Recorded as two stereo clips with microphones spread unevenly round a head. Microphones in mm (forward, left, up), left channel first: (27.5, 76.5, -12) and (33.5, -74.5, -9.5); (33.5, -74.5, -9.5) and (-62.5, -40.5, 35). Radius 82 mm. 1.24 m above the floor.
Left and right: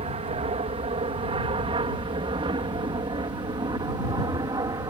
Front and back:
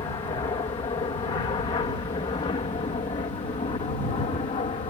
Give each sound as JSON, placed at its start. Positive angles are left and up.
{"t": 0.0, "sound": "an aircraft", "azimuth_deg": -45}